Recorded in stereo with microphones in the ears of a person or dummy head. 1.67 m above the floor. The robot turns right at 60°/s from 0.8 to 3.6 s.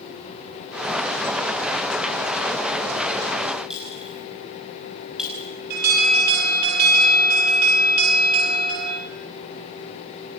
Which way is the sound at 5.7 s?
55° right (ahead or behind).